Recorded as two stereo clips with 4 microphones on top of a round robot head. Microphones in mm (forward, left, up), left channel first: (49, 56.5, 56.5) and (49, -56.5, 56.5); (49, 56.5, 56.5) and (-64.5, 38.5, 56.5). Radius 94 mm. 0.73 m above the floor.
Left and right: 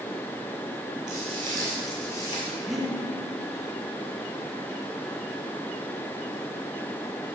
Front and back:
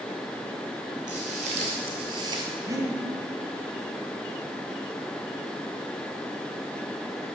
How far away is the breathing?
About 1.2 m.